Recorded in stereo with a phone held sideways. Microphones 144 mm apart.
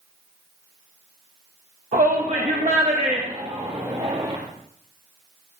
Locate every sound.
1.9 s a shout: 60° right (ahead or behind), 1.3 m; by 4.4 s 35° right (ahead or behind), 1.9 m